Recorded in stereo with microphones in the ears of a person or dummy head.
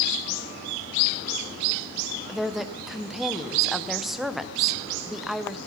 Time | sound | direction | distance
2.3 | a woman speaking | centre (ahead or behind) | 0.8 m